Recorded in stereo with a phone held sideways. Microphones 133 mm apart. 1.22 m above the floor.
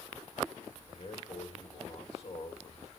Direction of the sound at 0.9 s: 50° left (ahead or behind).